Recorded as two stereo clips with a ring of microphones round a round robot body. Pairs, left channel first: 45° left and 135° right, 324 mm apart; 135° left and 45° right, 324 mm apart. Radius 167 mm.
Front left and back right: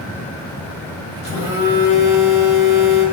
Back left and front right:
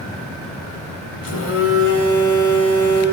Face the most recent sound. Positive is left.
turn(degrees=110)